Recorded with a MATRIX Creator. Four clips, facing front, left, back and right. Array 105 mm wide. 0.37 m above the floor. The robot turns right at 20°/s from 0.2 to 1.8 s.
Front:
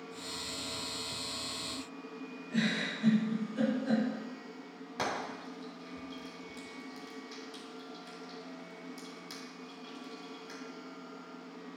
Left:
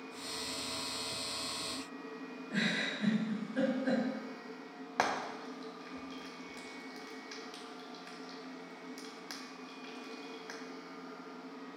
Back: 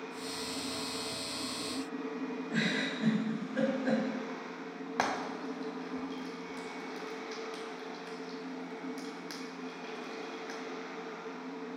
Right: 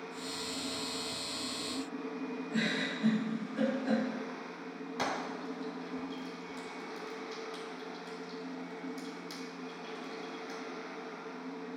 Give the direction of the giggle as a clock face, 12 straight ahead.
7 o'clock.